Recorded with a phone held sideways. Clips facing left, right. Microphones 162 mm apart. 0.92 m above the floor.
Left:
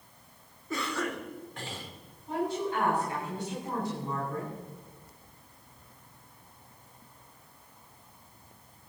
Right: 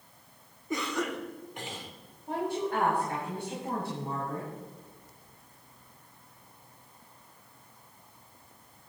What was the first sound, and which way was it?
A cough, 20° right (ahead or behind).